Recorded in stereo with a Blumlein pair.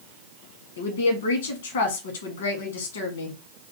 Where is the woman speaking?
60° left, 1.2 m.